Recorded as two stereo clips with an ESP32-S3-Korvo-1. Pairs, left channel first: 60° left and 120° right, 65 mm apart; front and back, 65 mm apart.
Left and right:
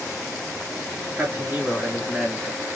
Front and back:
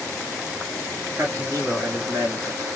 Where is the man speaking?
175° right, 3 m; by 2.7 s 155° left, 1.7 m.